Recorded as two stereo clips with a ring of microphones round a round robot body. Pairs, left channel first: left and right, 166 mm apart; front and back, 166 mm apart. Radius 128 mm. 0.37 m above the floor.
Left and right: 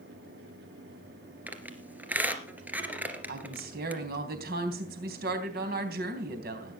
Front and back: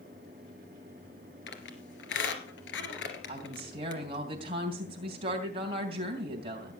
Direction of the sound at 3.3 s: 120° right.